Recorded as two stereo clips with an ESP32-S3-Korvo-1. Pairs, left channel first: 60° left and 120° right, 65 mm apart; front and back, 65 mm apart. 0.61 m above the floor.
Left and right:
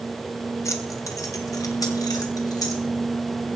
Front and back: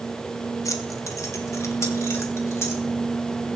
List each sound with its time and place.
0.7 s keys jangling: 25° left, 1.7 m; by 2.8 s 45° left, 3 m